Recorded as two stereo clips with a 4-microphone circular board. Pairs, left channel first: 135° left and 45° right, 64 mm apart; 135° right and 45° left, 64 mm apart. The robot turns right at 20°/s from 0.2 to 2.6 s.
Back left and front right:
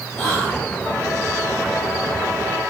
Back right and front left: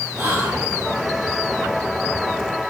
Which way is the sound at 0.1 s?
85° left.